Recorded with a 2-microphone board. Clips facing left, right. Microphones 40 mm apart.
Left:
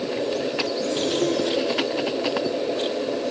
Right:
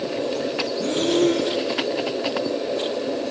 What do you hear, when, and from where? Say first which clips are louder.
0.8 s breathing: right 5 dB; 45° right (ahead or behind), 4.5 m